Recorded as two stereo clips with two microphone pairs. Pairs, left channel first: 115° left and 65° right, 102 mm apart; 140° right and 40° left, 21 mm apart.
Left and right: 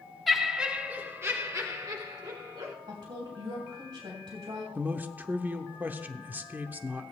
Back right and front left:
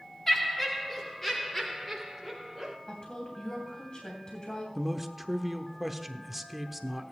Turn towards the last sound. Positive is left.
turn(degrees=-40)